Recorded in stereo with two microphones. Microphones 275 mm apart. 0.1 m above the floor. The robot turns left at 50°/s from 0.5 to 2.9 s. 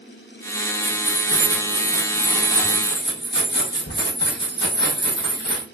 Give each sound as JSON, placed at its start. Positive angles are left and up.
{"t": 0.8, "sound": "keys jangling", "azimuth_deg": -115, "distance_m": 2.0}